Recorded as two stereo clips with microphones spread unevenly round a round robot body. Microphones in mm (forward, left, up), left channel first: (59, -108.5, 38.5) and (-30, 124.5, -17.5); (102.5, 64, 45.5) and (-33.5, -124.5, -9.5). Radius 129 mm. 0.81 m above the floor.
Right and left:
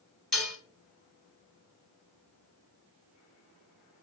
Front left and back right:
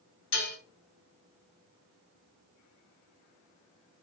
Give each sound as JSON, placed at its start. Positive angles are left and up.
{"t": 0.3, "sound": "dishes clattering", "azimuth_deg": 20, "distance_m": 4.0}